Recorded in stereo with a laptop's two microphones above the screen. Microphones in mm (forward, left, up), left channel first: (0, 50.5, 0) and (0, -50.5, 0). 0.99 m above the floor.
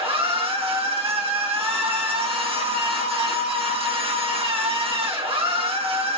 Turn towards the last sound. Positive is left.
turn(degrees=-65)  # may be behind; listen again after turning